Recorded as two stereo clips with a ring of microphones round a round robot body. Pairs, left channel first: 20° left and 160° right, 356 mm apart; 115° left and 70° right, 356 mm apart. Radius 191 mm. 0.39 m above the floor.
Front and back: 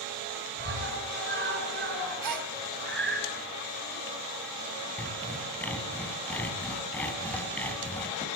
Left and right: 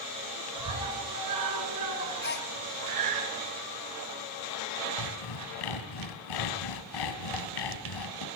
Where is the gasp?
175° left, 1.5 m.